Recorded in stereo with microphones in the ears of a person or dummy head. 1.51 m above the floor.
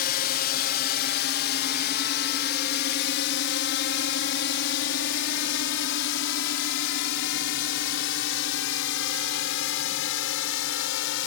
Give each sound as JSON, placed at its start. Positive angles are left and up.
{"t": 0.0, "sound": "a drone", "side_deg": 55}